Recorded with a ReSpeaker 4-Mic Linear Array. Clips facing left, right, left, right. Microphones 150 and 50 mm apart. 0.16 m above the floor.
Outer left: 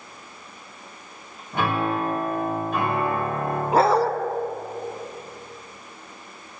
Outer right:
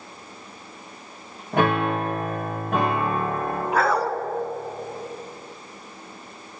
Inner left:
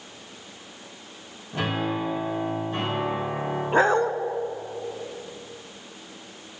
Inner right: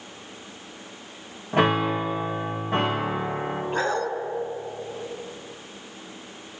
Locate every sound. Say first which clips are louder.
1.5 s a piano: outer right 3 dB, inner right 6 dB; 85° right, 4.5 m
3.7 s a dog barking: outer left 4 dB, inner left 7 dB; 30° left (ahead or behind), 0.6 m